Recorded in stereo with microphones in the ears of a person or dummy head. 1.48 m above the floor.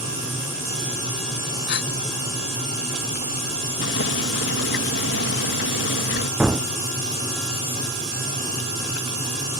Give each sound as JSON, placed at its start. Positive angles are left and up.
{"t": 1.7, "sound": "a gasp", "side_deg": 65}
{"t": 3.8, "sound": "boiling", "side_deg": 65}
{"t": 6.4, "sound": "a gunshot", "side_deg": -5}